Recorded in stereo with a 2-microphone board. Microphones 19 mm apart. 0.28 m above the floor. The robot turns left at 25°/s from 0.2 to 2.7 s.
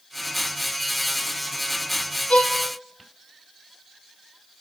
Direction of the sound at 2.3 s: 80° left.